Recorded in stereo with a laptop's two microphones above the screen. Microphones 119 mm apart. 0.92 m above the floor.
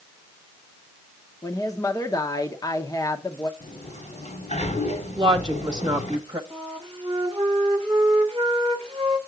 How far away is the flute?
About 1.2 m.